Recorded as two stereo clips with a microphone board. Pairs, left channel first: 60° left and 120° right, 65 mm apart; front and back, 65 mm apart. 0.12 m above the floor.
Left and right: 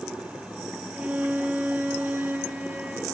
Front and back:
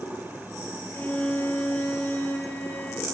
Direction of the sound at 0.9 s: 55° right.